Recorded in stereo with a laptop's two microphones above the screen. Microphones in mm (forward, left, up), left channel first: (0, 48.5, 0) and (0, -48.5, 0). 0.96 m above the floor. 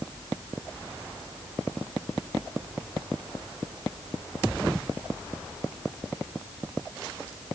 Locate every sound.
Only background noise.